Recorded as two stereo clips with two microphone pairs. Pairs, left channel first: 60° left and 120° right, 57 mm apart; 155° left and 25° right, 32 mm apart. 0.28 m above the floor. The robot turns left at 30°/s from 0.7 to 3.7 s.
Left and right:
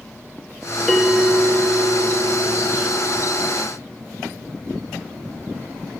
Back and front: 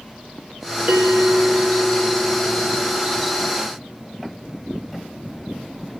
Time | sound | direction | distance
0.9 | a bell | 35° right | 1.2 m